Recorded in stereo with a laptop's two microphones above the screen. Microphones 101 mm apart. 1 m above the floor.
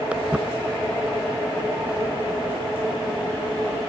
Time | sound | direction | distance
0.1 | footsteps | 10° right (ahead or behind) | ?